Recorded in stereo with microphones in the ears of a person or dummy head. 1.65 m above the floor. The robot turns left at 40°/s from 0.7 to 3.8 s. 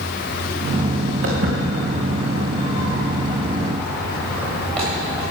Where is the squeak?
No squeak in this recording.